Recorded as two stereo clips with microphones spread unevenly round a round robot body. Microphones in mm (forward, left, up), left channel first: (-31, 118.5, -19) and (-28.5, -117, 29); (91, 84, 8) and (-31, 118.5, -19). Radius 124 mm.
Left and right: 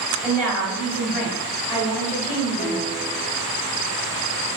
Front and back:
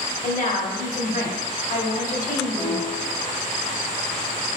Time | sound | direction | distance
0.2 | a woman speaking | straight ahead | 1.5 m
2.6 | a piano | 40° left | 2.0 m